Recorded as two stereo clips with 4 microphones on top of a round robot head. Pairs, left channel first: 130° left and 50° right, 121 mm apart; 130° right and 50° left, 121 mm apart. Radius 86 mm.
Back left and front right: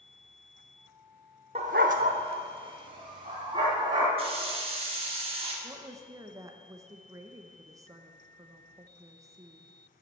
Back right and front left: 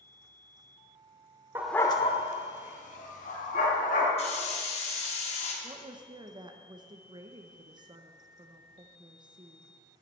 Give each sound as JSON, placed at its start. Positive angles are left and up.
{"t": 1.6, "sound": "a dog barking", "azimuth_deg": -15, "distance_m": 0.7}
{"t": 4.2, "sound": "a hiss", "azimuth_deg": -95, "distance_m": 3.0}
{"t": 5.6, "sound": "a woman speaking", "azimuth_deg": 5, "distance_m": 0.8}